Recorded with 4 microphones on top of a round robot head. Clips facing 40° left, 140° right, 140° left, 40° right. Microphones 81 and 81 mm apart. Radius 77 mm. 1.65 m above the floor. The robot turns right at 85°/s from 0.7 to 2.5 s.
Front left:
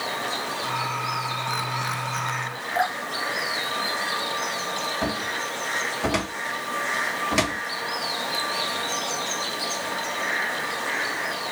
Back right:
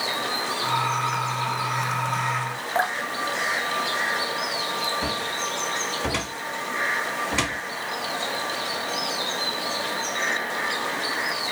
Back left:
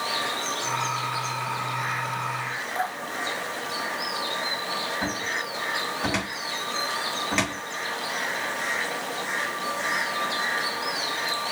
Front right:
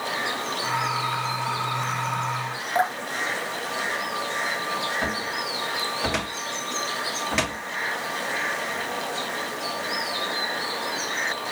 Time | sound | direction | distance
2.8 | dripping | 75° right | 1.0 m
5.0 | a cupboard door | 50° left | 1.4 m